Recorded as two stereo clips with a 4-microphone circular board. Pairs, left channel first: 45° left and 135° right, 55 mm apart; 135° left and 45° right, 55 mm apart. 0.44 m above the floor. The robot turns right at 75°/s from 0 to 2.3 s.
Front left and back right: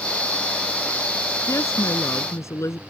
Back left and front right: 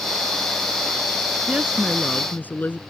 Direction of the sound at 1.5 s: 15° left.